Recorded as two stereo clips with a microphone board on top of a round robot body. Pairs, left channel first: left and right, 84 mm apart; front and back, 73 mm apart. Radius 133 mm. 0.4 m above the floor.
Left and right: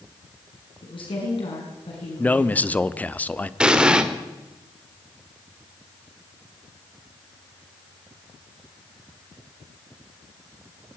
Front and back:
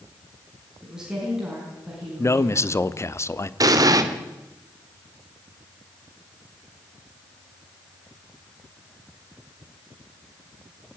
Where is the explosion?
170° right, 2 m.